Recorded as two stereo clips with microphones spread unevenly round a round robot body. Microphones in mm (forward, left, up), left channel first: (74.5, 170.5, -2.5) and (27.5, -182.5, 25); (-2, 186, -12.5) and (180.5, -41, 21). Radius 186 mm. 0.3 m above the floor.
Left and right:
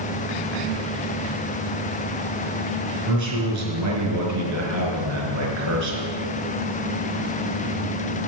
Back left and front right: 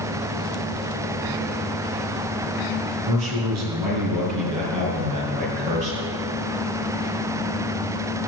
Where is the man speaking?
55° right, 5 m.